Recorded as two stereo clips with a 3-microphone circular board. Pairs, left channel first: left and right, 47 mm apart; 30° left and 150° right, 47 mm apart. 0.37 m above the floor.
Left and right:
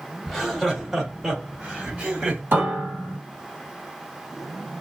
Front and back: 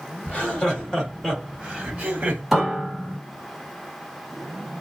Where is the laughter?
Straight ahead, 1.6 m; by 2.4 s 125° right, 1.6 m.